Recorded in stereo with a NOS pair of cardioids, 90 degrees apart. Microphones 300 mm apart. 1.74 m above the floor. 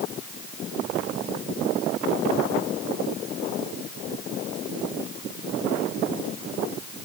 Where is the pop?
I don't hear a pop.